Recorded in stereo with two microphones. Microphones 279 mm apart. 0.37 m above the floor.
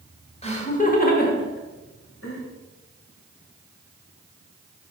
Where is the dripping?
No dripping in this recording.